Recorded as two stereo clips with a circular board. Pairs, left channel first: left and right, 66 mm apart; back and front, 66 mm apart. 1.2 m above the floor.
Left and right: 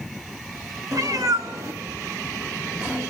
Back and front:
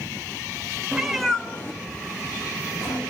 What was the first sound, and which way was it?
A cat meowing, 80° right.